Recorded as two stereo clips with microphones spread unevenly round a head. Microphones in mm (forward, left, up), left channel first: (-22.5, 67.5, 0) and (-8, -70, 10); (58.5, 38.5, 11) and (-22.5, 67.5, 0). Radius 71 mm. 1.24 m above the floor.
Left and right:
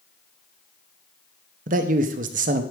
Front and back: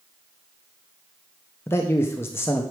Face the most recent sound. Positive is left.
turn(degrees=-90)